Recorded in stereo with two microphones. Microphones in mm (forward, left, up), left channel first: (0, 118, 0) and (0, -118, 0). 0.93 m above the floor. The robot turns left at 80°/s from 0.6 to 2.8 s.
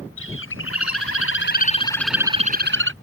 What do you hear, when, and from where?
0.2 s a bird: 120° left; by 2.9 s 55° right